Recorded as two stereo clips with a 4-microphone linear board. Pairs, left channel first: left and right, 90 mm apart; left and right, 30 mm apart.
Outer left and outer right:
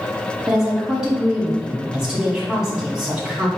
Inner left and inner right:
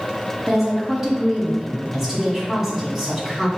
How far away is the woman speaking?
About 1.8 m.